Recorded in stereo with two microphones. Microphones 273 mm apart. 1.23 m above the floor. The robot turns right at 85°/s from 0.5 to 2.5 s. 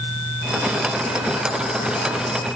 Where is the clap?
I don't hear a clap.